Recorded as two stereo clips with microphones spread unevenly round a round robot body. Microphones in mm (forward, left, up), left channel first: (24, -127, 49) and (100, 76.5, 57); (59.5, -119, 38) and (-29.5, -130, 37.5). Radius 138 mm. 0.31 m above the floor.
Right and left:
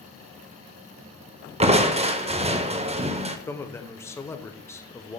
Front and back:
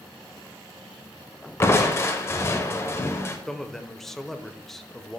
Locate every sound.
1.6 s crushing: 35° left, 1.0 m
3.5 s a man speaking: 70° right, 0.9 m